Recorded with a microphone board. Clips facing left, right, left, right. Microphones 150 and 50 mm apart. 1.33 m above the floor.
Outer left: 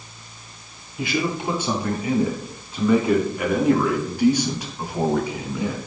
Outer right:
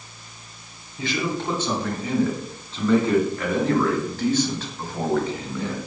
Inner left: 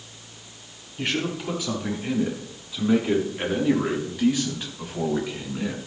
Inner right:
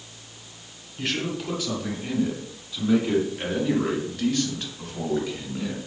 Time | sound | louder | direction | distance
1.0 | a man speaking | outer left 2 dB, inner left 1 dB | 10° left (ahead or behind) | 9 m